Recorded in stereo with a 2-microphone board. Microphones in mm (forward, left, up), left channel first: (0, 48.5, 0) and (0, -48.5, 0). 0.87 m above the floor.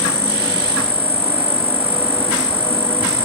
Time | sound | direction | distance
0.0 | an insect | 80° right | ?